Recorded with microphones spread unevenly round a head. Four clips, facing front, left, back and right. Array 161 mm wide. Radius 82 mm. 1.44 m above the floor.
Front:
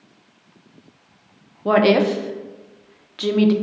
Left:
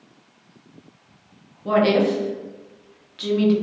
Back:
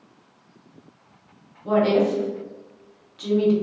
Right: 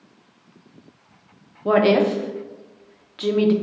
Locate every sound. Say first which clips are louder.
1.6 s a woman speaking: right 1 dB, front 4 dB; 30° right, 0.6 m